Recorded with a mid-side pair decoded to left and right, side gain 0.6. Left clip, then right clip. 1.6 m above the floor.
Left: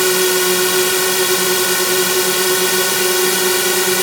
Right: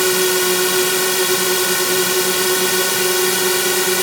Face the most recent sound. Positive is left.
turn(degrees=10)